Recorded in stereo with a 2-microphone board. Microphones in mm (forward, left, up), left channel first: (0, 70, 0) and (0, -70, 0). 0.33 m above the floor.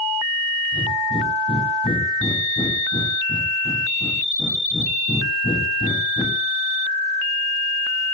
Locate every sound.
0.7 s breathing: 35° left (ahead or behind), 6 m